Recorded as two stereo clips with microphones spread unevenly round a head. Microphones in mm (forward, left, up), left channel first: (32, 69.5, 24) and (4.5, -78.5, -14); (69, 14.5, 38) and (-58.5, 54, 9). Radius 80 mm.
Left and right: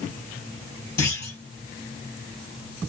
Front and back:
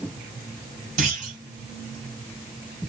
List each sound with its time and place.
1.0 s a clunk: 140° left, 1.6 m